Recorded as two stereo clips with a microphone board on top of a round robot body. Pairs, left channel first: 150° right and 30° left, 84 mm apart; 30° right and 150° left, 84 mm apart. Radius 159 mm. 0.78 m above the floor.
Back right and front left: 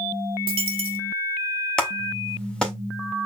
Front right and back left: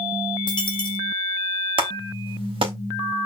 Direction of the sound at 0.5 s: 10° left.